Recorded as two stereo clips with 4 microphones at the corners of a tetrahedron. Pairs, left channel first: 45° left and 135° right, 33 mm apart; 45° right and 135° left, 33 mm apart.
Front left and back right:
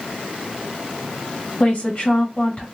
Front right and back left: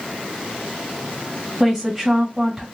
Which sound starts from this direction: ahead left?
A woman speaking, at 1.6 s.